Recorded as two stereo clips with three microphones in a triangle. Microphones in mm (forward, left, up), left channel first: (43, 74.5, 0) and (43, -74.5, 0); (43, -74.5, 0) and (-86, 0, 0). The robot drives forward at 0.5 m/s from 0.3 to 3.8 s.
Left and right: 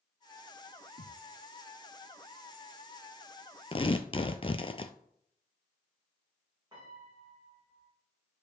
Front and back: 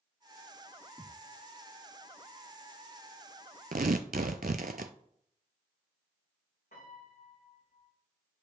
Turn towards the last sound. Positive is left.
turn(degrees=-25)